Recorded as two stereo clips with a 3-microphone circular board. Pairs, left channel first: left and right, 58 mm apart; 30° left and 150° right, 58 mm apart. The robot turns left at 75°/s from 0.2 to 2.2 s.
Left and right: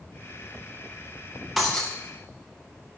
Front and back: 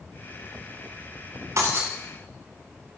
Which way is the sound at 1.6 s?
Straight behind.